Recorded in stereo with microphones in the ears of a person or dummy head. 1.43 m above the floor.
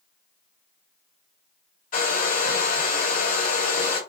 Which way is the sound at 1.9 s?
40° left (ahead or behind).